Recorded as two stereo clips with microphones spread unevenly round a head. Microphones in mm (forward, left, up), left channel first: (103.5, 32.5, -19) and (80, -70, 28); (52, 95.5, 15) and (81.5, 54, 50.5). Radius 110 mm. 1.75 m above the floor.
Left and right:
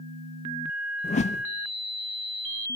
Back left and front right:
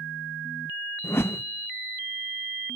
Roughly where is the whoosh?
Left.